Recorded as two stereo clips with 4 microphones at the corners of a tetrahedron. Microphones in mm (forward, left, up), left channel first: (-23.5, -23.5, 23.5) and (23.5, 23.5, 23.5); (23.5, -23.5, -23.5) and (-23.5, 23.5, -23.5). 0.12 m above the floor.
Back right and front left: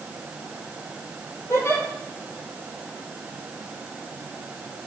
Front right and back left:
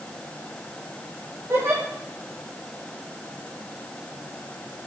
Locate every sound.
1.5 s a giggle: straight behind, 4 m